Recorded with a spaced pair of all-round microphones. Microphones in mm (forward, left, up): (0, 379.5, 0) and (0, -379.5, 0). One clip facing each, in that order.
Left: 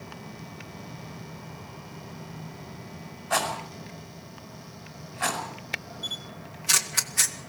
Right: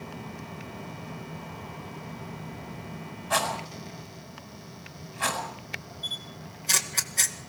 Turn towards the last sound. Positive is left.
turn(degrees=45)  # may be behind; listen again after turning